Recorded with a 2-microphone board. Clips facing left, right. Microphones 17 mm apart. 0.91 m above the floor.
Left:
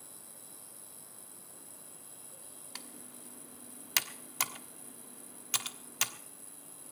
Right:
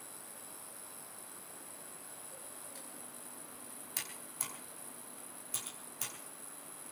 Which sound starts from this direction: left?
Typing on a keyboard, at 2.8 s.